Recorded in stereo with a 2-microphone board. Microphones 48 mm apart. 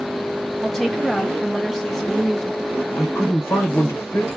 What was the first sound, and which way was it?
A woman speaking, 10° left (ahead or behind).